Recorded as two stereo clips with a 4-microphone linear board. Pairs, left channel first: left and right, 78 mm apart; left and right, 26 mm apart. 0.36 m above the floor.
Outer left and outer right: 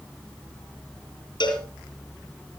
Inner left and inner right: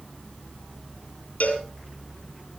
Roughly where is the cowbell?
Left.